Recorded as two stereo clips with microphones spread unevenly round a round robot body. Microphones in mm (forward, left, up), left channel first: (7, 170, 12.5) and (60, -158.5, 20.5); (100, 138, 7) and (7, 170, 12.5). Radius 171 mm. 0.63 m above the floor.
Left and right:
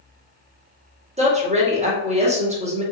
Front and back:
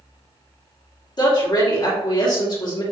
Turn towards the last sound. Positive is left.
turn(degrees=-15)